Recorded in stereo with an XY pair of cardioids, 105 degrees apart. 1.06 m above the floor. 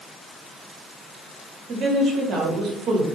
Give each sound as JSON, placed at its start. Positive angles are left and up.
{"t": 1.7, "sound": "a woman speaking", "azimuth_deg": -70, "distance_m": 1.3}